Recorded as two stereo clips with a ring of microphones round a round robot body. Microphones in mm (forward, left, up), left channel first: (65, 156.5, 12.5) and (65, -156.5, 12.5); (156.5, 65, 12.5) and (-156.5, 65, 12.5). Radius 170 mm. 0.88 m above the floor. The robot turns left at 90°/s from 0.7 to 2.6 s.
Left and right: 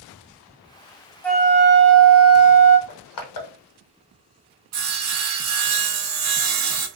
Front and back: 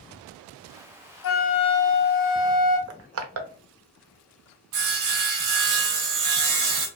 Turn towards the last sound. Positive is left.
turn(degrees=-135)